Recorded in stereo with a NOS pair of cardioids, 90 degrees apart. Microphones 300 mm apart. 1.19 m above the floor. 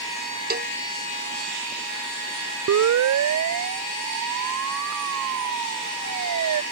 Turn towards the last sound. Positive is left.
turn(degrees=-65)